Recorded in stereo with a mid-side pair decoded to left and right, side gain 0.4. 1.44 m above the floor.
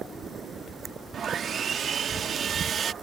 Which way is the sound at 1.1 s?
60° right.